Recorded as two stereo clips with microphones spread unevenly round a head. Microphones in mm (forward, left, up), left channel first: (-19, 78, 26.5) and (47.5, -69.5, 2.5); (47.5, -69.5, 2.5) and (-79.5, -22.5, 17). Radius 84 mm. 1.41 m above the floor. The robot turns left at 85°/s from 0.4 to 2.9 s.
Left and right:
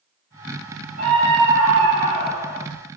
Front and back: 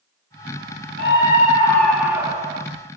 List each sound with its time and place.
1.0 s a scream: 25° right, 1.7 m; by 2.6 s 170° right, 1.7 m